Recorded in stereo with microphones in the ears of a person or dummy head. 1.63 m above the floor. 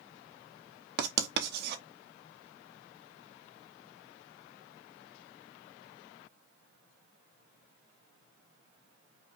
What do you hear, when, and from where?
1.0 s writing: 60° right (ahead or behind), 1.0 m